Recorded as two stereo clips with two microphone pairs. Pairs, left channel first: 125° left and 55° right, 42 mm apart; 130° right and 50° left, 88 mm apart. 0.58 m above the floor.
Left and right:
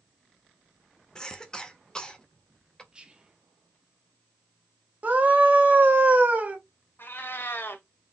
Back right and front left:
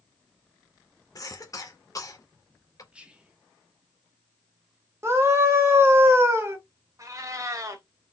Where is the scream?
10° right, 1.6 m.